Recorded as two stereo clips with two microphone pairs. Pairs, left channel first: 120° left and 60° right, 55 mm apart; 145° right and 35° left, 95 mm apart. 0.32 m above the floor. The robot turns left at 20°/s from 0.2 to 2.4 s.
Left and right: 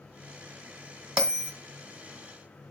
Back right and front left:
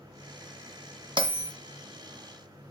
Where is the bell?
15° left, 1.9 m; by 1.5 s 5° left, 1.9 m.